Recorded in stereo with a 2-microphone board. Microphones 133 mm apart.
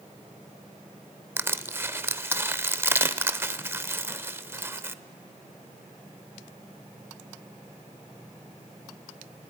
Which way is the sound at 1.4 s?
20° right (ahead or behind).